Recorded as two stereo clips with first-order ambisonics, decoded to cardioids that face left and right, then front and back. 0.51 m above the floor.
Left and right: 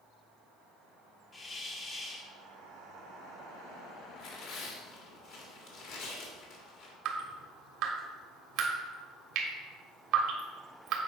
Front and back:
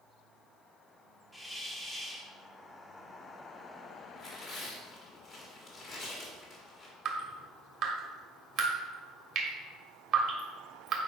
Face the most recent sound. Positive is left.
turn(degrees=-135)